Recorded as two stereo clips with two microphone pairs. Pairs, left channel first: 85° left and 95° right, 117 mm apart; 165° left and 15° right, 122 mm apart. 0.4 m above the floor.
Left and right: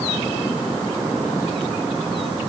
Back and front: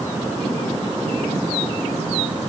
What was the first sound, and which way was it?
Only background noise.